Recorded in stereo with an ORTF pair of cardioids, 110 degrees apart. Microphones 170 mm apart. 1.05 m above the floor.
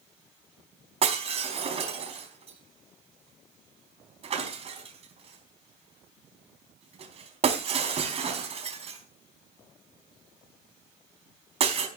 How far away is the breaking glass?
About 4 m.